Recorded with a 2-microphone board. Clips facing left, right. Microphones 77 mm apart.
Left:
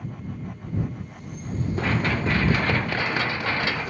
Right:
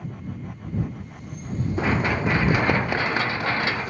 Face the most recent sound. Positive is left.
turn(degrees=-20)  # may be behind; listen again after turning